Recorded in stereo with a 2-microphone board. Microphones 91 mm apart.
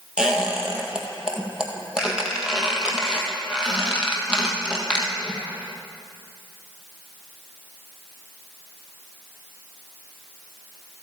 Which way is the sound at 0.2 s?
10° right (ahead or behind).